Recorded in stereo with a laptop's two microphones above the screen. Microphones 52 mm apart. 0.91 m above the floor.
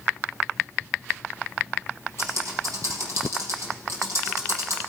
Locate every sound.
2.2 s typing on a keyboard: 65° right (ahead or behind), 4.5 m